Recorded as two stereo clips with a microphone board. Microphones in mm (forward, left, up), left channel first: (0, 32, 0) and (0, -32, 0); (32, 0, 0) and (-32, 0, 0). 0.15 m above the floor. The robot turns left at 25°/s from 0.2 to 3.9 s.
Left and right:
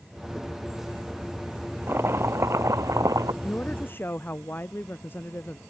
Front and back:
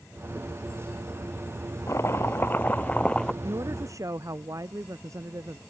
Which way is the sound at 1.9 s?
40° right.